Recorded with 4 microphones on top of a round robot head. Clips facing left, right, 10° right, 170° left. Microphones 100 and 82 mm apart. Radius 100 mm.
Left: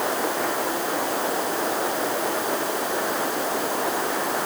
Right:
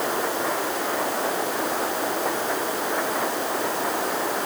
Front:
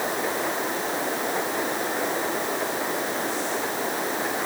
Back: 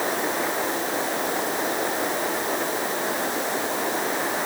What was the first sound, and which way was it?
Only background noise.